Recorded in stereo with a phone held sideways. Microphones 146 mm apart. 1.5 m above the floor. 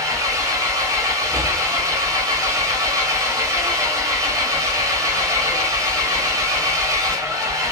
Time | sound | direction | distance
0.0 | an engine running | 20° right (ahead or behind) | 1.0 m